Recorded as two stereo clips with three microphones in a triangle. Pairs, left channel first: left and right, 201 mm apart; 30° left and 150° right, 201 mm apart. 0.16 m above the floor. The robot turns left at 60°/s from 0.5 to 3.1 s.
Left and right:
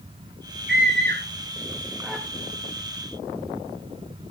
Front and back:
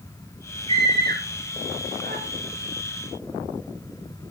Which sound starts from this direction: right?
A scream, at 0.7 s.